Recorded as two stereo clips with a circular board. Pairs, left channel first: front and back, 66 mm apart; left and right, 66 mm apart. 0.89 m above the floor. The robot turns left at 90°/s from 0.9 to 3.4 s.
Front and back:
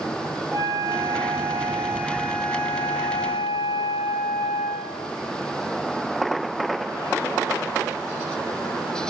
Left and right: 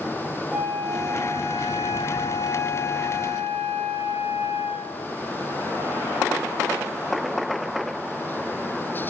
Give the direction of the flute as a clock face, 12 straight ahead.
5 o'clock.